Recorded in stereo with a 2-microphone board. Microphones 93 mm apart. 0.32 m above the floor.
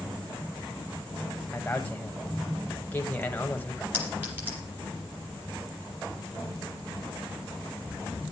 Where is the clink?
20° right (ahead or behind), 5 m.